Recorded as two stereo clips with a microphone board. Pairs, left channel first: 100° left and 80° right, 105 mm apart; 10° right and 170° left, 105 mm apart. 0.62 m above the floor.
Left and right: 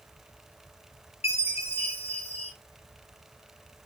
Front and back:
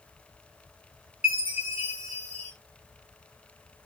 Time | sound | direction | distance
1.2 | a chime | 90° left | 1.6 m